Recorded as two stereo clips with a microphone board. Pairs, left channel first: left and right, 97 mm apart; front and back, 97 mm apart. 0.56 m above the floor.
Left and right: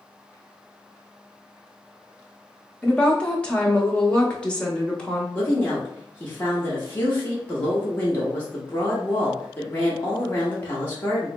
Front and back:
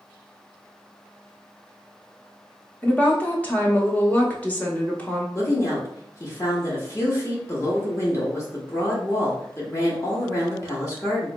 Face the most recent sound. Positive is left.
turn(degrees=35)